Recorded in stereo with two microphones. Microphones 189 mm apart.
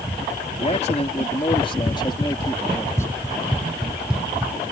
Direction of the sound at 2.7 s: 20° left (ahead or behind).